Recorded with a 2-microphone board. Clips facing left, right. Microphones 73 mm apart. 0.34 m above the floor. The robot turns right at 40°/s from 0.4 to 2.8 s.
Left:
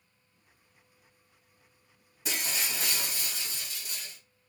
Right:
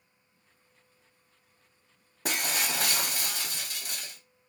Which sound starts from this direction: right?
Breaking glass, at 2.2 s.